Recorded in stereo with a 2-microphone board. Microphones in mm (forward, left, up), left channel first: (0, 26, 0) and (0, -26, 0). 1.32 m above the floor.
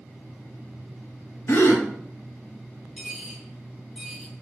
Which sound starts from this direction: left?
A gasp, at 1.5 s.